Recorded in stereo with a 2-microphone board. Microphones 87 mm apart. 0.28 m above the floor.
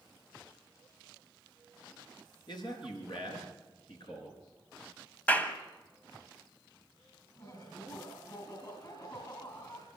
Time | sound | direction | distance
2.5 | a man speaking | 55° left (ahead or behind) | 4 m
5.3 | a clap | 15° left (ahead or behind) | 1.3 m
7.4 | laughter | 45° left (ahead or behind) | 2.5 m